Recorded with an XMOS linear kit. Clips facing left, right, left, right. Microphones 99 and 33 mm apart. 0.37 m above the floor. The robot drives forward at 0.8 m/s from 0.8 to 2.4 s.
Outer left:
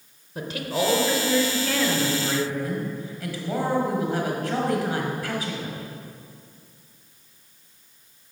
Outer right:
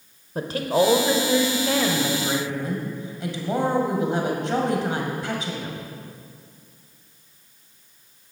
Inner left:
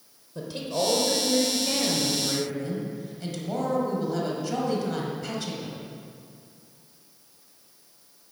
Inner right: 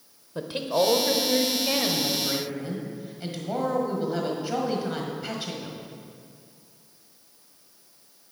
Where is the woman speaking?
40° right (ahead or behind), 1.0 m; by 5.8 s 25° right (ahead or behind), 1.7 m.